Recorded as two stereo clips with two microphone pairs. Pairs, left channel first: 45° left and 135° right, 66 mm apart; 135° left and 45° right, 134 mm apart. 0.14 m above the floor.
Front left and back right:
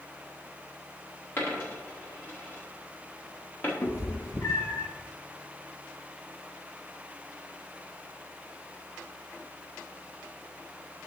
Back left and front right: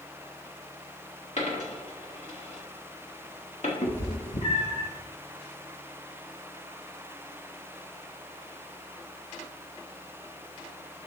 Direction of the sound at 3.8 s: 95° left.